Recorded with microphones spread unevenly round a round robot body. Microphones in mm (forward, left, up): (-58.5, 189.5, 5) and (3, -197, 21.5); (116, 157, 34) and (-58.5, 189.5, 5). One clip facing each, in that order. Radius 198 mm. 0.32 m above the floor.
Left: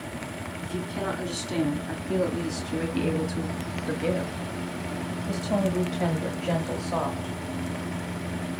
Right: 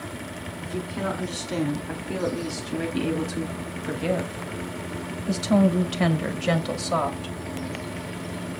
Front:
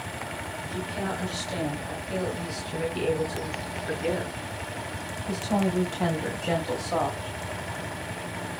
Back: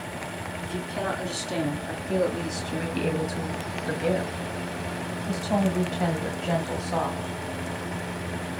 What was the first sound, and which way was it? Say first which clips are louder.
A woman speaking: right 2 dB, back 2 dB; 175° left.